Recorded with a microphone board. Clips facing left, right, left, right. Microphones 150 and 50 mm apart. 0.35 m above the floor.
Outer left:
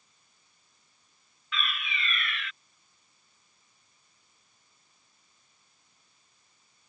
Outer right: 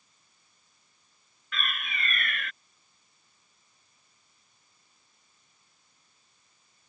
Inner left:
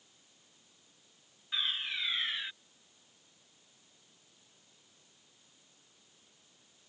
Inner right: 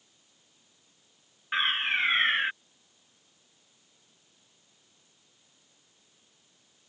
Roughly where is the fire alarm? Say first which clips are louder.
Outer left 1 dB, inner right 9 dB; right.